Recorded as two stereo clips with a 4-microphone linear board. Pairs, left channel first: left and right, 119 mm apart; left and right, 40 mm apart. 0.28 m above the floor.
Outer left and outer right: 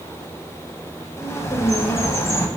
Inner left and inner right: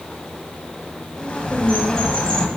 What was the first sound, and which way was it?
A bird, 25° left (ahead or behind).